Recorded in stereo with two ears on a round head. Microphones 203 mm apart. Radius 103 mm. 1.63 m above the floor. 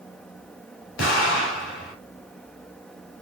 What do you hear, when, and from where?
1.0 s an explosion: 55° left (ahead or behind), 2.5 m